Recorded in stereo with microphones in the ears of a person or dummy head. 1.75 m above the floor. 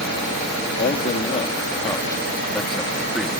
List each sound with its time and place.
0.8 s a man speaking: 40° left (ahead or behind); by 3.3 s 10° right (ahead or behind)